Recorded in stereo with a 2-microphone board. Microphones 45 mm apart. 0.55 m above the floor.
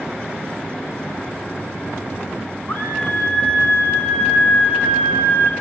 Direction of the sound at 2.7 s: 45° left (ahead or behind).